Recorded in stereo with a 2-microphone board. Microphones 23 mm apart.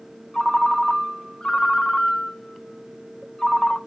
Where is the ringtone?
25° left (ahead or behind), 0.7 m.